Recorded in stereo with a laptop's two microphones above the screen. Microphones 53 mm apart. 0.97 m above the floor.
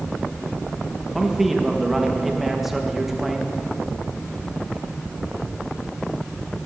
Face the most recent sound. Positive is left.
turn(degrees=-5)  # may be behind; listen again after turning